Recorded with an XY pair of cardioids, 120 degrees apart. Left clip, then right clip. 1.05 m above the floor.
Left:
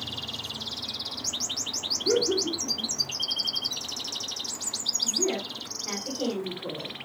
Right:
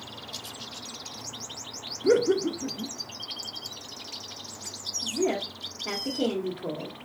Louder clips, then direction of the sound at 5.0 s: Right 3 dB; 50° right.